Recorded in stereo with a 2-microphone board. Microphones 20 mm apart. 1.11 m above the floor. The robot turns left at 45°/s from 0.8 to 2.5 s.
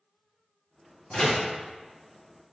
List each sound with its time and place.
1.1 s a door slam: 55° left (ahead or behind), 1.5 m; by 1.5 s 40° left (ahead or behind), 1.5 m